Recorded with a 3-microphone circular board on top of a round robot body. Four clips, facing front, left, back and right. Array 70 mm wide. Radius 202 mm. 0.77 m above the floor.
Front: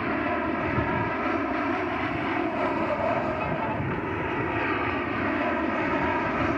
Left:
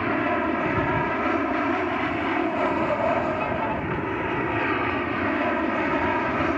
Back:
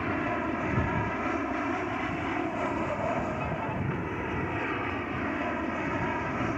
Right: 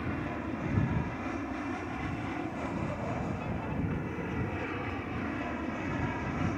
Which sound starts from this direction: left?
An aircraft, at 0.0 s.